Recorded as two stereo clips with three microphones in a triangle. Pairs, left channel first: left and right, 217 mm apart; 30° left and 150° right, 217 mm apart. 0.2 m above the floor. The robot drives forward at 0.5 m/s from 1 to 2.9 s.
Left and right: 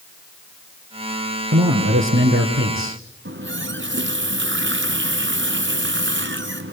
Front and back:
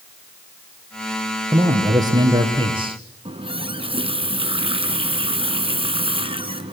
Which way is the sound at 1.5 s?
75° right.